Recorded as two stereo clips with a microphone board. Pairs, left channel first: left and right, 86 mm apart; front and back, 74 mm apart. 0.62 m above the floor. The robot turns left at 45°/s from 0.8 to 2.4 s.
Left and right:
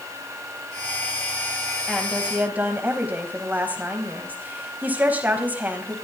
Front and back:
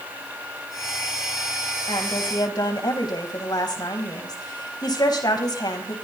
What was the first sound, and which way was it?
A woman speaking, 5° left.